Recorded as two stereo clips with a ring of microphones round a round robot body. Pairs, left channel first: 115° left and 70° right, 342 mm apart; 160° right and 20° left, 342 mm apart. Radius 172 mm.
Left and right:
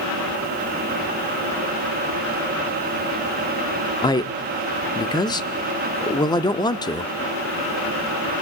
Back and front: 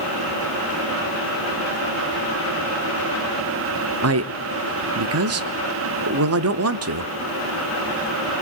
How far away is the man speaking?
About 0.7 m.